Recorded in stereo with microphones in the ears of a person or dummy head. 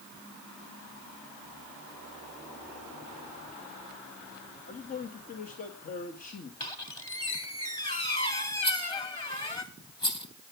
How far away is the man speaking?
About 1.8 m.